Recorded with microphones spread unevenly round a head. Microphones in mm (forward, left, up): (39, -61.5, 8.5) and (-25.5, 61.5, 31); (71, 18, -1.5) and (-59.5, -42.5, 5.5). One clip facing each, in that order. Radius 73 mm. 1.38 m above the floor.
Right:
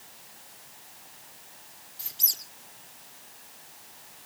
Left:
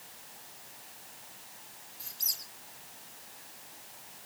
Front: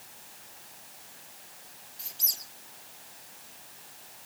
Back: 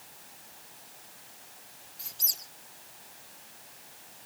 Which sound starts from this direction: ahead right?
A squeak, at 2.0 s.